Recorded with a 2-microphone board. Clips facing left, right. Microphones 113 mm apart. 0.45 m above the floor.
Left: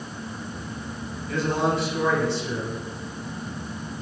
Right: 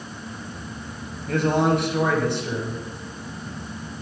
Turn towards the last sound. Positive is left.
turn(degrees=-60)  # may be behind; listen again after turning